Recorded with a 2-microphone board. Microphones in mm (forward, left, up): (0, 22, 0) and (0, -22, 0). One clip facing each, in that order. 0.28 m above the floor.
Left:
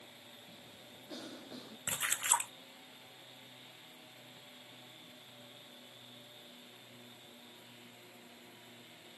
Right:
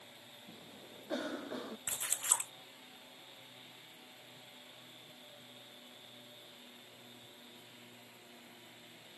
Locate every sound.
0.5 s a cough: 45° right (ahead or behind)
1.9 s a splash: 45° left (ahead or behind)